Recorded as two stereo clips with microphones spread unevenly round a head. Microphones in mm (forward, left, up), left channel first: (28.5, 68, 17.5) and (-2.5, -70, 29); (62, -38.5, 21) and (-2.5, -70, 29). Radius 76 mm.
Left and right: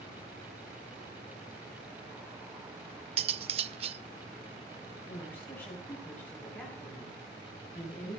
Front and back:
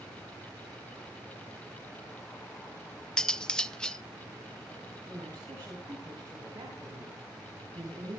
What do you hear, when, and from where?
3.2 s cutlery clinking: 55° right, 0.7 m
5.1 s a woman speaking: 155° left, 5 m